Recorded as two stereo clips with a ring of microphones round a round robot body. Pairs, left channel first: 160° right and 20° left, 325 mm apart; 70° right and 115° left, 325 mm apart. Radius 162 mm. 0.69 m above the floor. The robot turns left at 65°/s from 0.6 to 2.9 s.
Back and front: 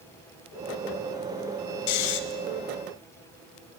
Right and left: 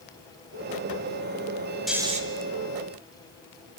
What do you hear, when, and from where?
1.9 s snoring: 155° right, 1.6 m; by 2.2 s straight behind, 1.6 m